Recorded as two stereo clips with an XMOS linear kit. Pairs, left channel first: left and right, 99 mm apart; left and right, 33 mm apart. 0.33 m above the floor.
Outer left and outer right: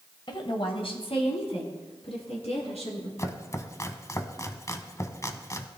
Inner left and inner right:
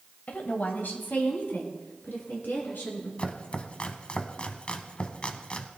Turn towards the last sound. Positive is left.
turn(degrees=30)  # may be behind; listen again after turning